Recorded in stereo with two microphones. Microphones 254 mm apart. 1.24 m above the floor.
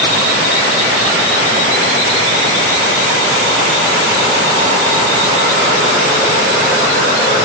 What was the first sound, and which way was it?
Only background noise.